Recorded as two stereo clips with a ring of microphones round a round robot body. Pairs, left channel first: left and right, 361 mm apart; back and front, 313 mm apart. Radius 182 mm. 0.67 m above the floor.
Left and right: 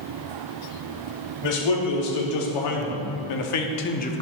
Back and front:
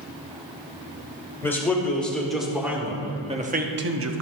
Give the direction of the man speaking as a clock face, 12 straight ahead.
9 o'clock.